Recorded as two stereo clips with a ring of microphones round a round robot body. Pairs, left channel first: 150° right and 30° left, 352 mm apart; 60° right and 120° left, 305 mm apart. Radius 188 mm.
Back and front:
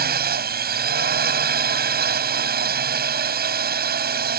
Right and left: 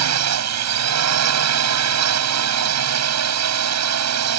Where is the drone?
95° left.